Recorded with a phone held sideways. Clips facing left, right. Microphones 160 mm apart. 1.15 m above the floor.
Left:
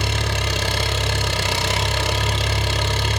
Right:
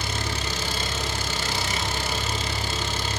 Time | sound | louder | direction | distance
0.0 | an engine running | left 5 dB | 80° left | 4.5 m